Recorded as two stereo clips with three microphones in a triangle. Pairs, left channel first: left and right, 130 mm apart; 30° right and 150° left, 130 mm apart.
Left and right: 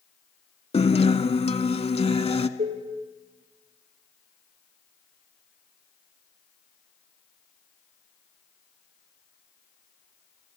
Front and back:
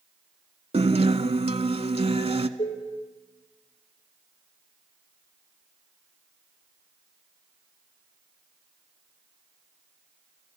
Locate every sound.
0.7 s a guitar: 120° left, 0.7 m
2.6 s dishes clattering: 75° right, 3.5 m